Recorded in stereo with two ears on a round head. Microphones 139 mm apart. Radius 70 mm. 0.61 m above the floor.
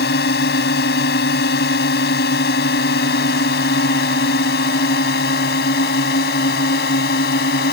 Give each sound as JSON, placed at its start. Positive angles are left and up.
{"t": 0.0, "sound": "a drone", "side_deg": 70}